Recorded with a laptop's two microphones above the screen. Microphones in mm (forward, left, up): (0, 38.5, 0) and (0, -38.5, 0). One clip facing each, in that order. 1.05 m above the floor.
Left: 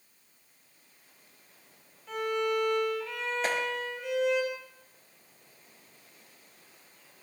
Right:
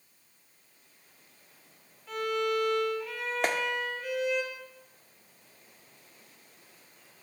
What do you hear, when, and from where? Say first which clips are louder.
2.1 s a violin: even; 5° right (ahead or behind), 6 m
3.4 s a clap: right 2 dB; 85° right, 1.9 m